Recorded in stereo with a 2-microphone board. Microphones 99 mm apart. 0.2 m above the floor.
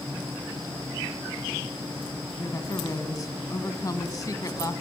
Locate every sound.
2.4 s a woman speaking: 40° left (ahead or behind), 1.7 m